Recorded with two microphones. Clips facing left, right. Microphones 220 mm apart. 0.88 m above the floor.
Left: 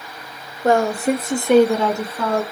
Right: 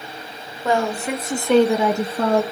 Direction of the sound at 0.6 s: 55° left (ahead or behind).